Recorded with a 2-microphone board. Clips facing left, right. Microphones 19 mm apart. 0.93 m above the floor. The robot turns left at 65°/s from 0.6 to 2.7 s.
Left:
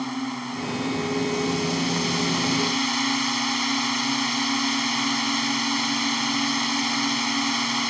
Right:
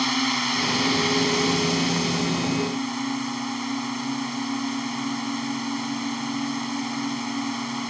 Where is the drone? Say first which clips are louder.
Right 6 dB; 90° right; by 7.9 s 130° left.